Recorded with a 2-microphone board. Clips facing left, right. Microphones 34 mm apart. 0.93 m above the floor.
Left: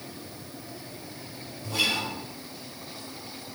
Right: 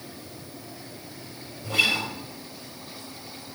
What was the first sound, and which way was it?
A guitar, 55° right (ahead or behind).